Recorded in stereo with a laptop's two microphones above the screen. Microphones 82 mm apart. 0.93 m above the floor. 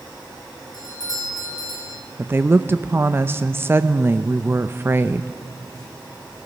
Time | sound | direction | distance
0.7 | a doorbell | 50° left (ahead or behind) | 3 m
2.2 | a woman speaking | 25° right (ahead or behind) | 0.7 m